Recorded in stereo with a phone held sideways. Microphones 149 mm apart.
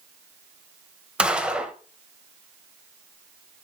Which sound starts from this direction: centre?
A gunshot, at 1.2 s.